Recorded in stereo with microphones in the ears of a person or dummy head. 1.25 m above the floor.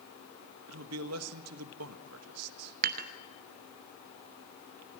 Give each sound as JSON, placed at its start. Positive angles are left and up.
{"t": 0.7, "sound": "a man speaking", "side_deg": -85, "distance_m": 1.4}
{"t": 2.8, "sound": "dishes clattering", "side_deg": -45, "distance_m": 1.0}